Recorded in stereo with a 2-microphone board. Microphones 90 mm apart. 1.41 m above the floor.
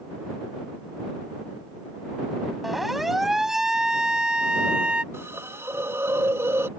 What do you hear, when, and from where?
2.6 s a siren: centre (ahead or behind); by 5.0 s 10° right (ahead or behind)
5.1 s a hiss: 30° right (ahead or behind)